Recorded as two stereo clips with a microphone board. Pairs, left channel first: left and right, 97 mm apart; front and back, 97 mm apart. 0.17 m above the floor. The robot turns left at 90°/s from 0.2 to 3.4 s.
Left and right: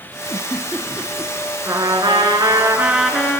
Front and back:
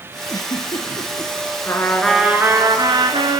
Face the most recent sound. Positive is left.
turn(degrees=155)